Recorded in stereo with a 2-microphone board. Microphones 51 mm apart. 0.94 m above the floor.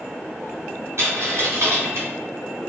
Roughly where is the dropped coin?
Right.